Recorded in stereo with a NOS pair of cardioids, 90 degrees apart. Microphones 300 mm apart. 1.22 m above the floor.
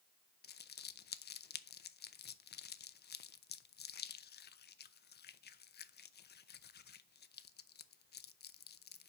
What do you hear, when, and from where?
0.4 s crumpling: 35° left, 0.6 m